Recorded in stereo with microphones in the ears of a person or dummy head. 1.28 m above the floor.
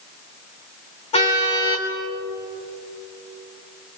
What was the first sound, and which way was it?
A car horn, 30° left (ahead or behind).